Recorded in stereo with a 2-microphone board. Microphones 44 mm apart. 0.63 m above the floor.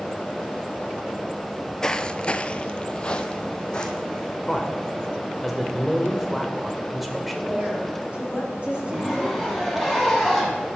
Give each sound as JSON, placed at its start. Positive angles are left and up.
{"t": 1.5, "sound": "footsteps", "side_deg": 5, "distance_m": 1.0}
{"t": 4.5, "sound": "a man speaking", "side_deg": 0, "distance_m": 1.9}
{"t": 7.4, "sound": "a woman speaking", "side_deg": -25, "distance_m": 4.5}
{"t": 8.8, "sound": "a zipper", "side_deg": -5, "distance_m": 3.5}